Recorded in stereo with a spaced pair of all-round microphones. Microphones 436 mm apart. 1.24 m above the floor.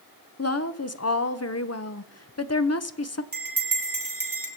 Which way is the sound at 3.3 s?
50° right (ahead or behind).